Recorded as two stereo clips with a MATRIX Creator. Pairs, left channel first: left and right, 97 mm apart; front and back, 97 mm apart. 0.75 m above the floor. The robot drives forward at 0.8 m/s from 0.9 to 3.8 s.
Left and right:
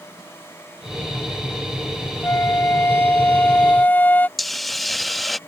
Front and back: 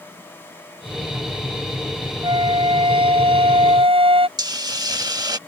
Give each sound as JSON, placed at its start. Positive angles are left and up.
{"t": 2.2, "sound": "a flute", "azimuth_deg": 150}
{"t": 4.4, "sound": "a hiss", "azimuth_deg": 180}